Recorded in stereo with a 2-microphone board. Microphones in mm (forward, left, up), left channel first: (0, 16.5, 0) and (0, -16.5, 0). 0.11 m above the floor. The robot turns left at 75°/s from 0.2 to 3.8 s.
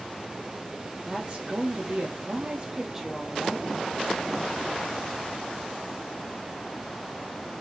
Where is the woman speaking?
25° right, 3 m; by 3.8 s 130° left, 3 m.